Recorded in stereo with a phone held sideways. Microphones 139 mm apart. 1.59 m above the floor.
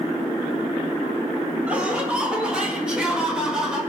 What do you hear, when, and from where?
1.7 s laughter: 10° right (ahead or behind), 4.5 m; by 3.8 s 5° right (ahead or behind), 6.5 m